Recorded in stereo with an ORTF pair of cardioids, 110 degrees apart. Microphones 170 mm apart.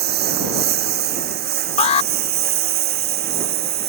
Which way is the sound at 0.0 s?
70° right.